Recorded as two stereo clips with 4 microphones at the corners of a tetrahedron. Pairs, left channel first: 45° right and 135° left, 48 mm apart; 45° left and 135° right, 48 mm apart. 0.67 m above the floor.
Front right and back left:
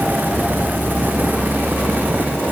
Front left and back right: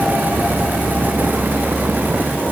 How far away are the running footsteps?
No running footsteps in this recording.